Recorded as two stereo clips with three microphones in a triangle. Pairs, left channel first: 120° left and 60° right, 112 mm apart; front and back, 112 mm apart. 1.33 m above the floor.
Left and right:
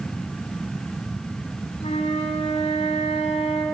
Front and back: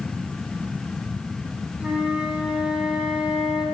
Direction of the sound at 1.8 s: 100° left.